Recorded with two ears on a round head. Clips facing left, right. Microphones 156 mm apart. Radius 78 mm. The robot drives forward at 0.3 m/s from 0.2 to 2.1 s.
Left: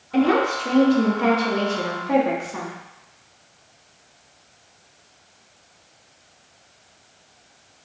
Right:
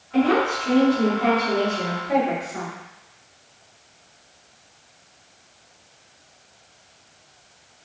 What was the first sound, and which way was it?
A woman speaking, 55° left (ahead or behind).